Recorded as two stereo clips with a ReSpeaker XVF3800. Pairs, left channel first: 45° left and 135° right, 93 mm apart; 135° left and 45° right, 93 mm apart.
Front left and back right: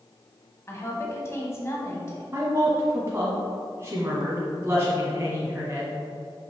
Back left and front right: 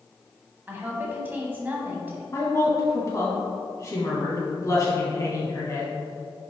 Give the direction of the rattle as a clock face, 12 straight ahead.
I don't hear a rattle.